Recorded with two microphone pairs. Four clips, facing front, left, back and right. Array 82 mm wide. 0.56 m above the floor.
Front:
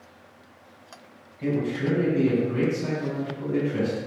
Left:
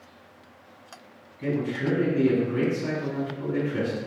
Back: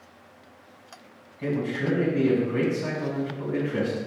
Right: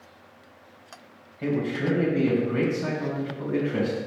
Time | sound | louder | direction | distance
1.4 | a man speaking | right 1 dB, front 1 dB | 105° right | 3 m